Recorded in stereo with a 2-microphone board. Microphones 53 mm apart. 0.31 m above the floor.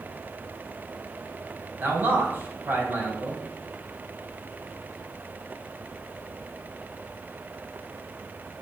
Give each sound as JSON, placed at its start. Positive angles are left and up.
{"t": 1.8, "sound": "a man speaking", "side_deg": -40, "distance_m": 1.9}